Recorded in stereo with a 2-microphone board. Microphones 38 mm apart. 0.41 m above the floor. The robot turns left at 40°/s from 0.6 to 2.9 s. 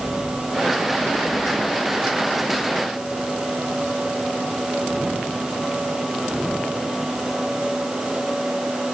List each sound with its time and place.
Only background noise.